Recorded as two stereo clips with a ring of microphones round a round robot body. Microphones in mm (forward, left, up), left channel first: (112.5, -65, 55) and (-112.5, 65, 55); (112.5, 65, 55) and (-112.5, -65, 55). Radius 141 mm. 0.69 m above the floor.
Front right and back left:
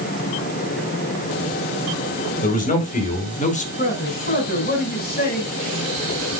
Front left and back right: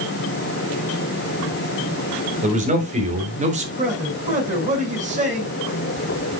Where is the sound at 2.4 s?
90° right, 3.5 m.